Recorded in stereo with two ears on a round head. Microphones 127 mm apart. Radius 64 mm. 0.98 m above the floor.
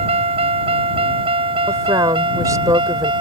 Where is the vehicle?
45° right (ahead or behind); by 3.2 s 35° right (ahead or behind).